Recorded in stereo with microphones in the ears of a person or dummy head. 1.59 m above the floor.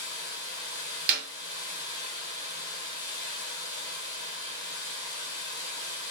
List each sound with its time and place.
0.0 s running water: 25° left (ahead or behind), 3 m
1.1 s a clap: 55° right (ahead or behind), 1.3 m